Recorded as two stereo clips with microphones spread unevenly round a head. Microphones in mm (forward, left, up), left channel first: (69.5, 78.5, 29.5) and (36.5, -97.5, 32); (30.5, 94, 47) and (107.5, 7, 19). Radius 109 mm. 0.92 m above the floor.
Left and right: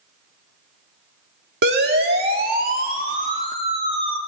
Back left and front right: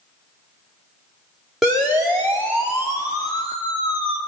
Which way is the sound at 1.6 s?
135° right.